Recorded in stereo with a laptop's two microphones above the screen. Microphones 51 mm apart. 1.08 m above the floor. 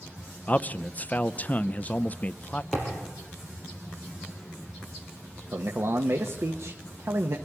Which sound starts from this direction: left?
A man speaking, at 0.5 s.